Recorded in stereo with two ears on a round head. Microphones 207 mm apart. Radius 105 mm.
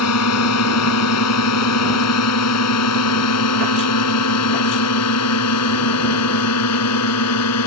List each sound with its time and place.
0.0 s a drone: 75° left (ahead or behind)